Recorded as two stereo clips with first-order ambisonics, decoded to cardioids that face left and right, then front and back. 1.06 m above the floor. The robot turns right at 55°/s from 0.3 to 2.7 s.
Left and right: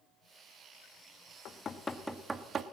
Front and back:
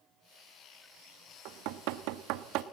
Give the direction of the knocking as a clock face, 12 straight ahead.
7 o'clock.